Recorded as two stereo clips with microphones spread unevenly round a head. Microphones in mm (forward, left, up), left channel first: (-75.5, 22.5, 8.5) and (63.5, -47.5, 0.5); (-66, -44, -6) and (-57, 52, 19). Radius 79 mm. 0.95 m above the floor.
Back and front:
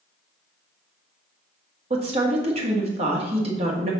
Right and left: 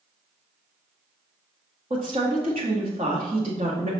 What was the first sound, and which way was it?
A woman speaking, 25° left.